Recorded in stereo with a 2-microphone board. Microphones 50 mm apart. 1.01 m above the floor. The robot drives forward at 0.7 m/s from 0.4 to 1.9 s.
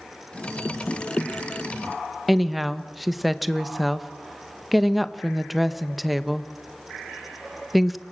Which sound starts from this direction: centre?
A woman speaking, at 2.3 s.